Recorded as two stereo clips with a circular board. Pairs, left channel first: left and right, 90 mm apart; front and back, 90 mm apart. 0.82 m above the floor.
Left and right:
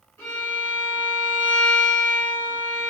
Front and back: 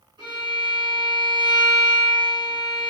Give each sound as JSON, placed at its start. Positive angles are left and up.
{"t": 0.2, "sound": "a violin", "azimuth_deg": 155, "distance_m": 1.5}